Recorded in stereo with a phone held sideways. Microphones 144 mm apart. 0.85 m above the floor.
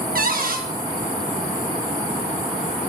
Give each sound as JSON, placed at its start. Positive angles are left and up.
{"t": 0.1, "sound": "a cupboard door", "side_deg": -70, "distance_m": 0.9}